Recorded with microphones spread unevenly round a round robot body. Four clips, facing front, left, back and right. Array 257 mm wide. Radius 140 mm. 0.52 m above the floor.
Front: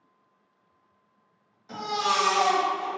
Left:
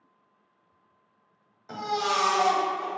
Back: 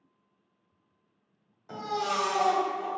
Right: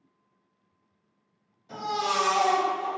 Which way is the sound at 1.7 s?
95° left.